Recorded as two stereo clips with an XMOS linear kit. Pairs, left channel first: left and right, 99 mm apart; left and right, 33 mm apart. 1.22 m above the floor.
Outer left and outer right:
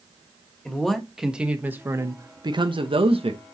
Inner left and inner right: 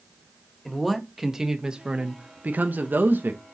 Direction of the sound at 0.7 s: 5° left (ahead or behind).